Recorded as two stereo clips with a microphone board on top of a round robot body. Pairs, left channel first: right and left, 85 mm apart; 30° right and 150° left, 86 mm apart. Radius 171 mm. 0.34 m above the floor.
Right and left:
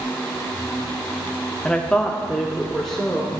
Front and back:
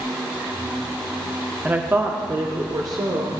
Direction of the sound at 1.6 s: 155° right.